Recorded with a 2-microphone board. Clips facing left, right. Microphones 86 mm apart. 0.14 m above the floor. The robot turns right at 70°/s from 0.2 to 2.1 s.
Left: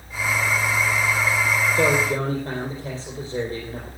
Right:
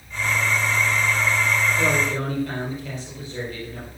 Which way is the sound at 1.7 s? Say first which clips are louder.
Left 2 dB; 55° left (ahead or behind).